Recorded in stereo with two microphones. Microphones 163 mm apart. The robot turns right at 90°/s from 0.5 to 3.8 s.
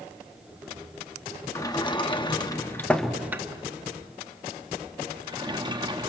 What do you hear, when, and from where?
1.6 s a sliding door: 20° left (ahead or behind), 0.9 m; by 6.1 s 25° right (ahead or behind), 0.9 m